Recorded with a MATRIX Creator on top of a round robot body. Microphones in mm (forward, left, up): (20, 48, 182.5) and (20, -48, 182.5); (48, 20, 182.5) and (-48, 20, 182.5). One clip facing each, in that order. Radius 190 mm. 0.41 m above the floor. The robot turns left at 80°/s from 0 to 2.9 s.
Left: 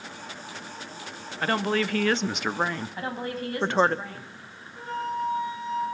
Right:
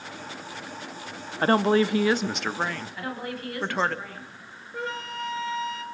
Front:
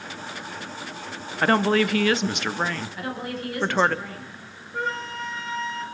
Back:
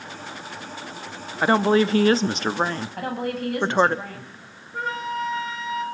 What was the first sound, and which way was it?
A woman speaking, 105° right.